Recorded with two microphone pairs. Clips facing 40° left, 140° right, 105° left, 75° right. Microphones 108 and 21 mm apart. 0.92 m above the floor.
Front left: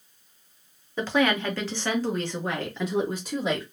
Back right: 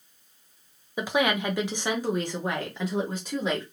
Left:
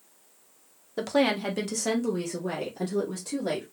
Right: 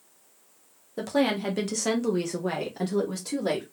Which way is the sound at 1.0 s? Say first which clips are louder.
Front left 2 dB, left 1 dB; 150° left.